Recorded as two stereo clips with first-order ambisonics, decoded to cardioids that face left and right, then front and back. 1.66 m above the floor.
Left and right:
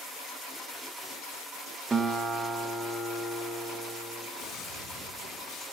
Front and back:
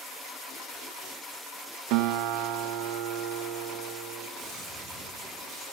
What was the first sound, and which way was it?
A guitar, 165° right.